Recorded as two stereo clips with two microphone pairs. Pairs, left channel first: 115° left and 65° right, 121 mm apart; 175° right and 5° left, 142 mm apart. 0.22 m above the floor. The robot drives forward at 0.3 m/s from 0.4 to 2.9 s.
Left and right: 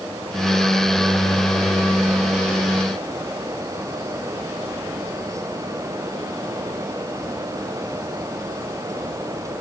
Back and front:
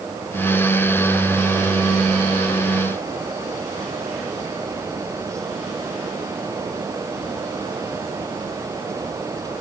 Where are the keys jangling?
No keys jangling in this recording.